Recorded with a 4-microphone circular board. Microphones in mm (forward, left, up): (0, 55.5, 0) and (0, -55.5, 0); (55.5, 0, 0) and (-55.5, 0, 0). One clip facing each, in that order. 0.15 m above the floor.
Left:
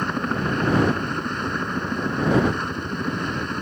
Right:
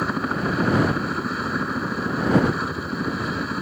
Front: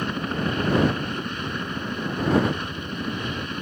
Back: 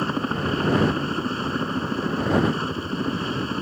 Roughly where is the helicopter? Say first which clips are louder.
Even, back 2 dB; behind.